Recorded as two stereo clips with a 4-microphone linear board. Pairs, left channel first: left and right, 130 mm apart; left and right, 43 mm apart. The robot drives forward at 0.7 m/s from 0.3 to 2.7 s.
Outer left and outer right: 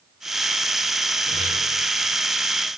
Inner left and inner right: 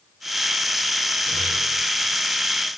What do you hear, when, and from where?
1.2 s a guitar: 35° right (ahead or behind), 5.5 m